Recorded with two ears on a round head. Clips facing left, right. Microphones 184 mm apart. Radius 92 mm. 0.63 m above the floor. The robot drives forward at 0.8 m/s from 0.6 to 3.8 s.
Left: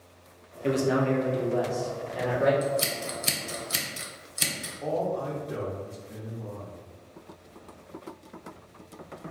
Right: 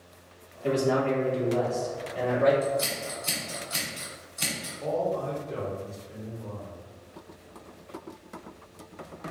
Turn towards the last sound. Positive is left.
turn(degrees=15)  # may be behind; listen again after turning